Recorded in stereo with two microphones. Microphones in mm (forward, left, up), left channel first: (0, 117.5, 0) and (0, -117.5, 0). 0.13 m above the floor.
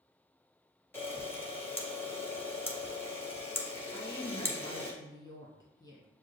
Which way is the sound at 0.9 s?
10° left (ahead or behind).